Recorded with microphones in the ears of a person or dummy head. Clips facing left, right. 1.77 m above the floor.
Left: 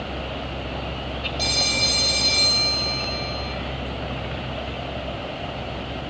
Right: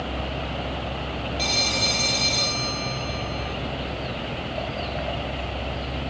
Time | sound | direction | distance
1.4 | a phone ringing | 5° left (ahead or behind) | 1.4 m